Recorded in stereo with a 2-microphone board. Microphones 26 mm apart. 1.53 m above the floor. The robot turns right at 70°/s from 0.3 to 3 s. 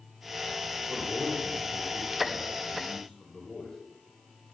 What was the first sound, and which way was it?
A man speaking, 85° right.